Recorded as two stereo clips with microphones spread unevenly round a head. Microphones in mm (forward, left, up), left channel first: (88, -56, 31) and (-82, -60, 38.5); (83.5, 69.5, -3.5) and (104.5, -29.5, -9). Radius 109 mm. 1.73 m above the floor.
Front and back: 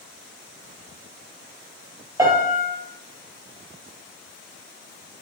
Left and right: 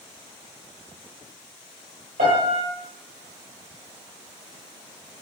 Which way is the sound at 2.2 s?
105° right.